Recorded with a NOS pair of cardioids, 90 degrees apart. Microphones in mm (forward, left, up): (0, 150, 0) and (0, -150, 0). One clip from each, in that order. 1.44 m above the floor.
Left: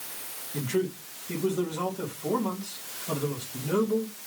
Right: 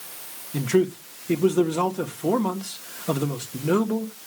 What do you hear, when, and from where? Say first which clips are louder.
0.5 s a man speaking: right 7 dB; 65° right, 2.5 m